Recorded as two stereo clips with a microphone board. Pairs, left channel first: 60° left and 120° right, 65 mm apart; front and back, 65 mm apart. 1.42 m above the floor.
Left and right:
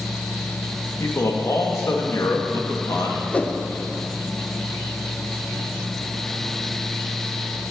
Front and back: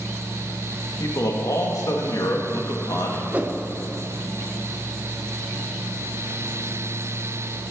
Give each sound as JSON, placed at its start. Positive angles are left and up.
{"t": 1.0, "sound": "a man speaking", "azimuth_deg": 25, "distance_m": 1.8}
{"t": 3.3, "sound": "a whoosh", "azimuth_deg": 120, "distance_m": 0.7}